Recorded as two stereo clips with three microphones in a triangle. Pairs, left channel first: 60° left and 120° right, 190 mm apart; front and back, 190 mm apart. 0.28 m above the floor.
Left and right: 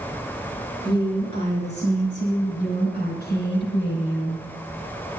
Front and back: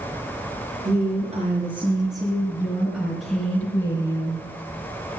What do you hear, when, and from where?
0.8 s a woman speaking: 135° left, 5 m; by 4.4 s 65° left, 4.5 m